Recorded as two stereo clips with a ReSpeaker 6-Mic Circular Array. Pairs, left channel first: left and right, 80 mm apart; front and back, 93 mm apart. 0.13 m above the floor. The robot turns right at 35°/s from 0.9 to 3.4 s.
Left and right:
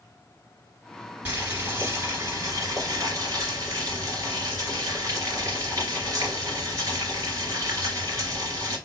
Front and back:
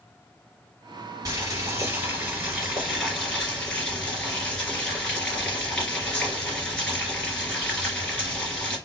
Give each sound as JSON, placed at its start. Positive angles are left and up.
{"t": 1.2, "sound": "boiling", "azimuth_deg": -150, "distance_m": 2.5}